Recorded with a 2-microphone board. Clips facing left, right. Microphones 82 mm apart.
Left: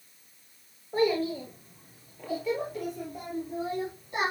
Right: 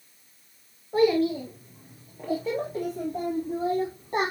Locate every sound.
0.9 s a child speaking: 5° right (ahead or behind), 3.5 m; by 4.3 s 40° right (ahead or behind), 6 m